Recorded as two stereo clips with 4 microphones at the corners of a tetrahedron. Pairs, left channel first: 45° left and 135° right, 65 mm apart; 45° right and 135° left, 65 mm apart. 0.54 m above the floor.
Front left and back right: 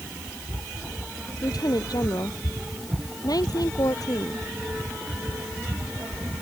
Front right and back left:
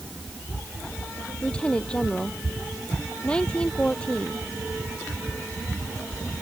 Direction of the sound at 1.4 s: 30° left.